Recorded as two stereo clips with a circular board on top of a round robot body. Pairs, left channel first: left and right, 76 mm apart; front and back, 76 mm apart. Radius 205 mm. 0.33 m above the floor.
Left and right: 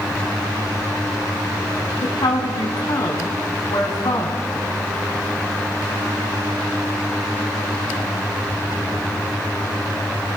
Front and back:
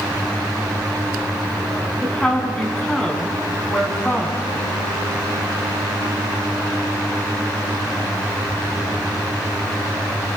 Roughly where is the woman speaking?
Left.